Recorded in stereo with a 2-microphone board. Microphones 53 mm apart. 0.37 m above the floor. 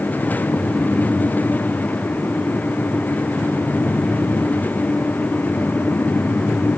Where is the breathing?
No breathing in this recording.